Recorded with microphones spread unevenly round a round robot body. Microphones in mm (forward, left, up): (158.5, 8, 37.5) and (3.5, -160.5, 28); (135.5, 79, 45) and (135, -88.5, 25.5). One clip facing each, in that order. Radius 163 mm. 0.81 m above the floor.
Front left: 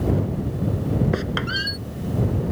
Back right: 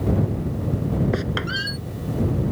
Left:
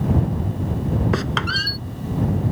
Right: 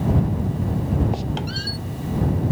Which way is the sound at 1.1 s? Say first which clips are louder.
Even, left 3 dB; 135° left.